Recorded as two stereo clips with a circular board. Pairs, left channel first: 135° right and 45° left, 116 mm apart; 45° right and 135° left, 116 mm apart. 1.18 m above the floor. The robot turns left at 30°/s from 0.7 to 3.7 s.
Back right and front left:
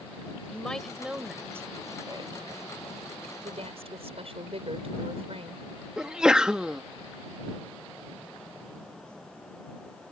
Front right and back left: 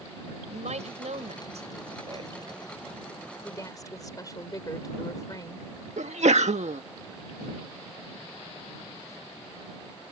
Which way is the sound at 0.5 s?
140° left.